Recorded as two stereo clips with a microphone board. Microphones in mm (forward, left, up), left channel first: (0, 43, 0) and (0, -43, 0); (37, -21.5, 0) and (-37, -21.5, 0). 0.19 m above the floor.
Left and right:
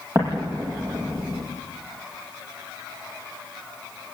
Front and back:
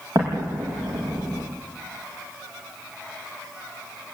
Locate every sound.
0.1 s an explosion: 140° right, 8 m